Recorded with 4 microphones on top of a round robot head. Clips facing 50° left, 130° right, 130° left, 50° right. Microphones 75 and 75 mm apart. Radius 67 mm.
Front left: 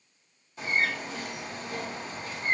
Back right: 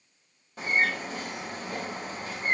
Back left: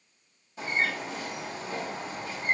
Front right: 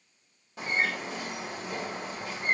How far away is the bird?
About 4.5 m.